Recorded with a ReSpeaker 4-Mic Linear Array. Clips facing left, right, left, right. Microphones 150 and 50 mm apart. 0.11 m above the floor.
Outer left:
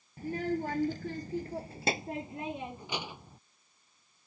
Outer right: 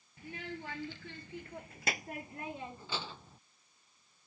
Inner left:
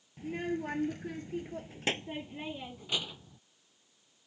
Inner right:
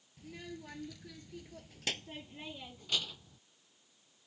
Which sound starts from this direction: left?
A child speaking, at 0.2 s.